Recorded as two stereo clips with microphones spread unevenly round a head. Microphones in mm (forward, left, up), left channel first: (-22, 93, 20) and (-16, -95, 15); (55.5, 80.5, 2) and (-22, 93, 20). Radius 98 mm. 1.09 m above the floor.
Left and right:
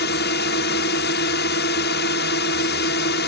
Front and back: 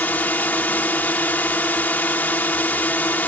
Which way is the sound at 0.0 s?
60° left.